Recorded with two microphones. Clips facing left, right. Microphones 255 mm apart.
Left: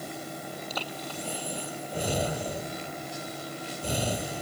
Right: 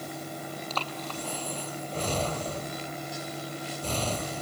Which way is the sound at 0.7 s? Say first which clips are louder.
Even; 10° left (ahead or behind).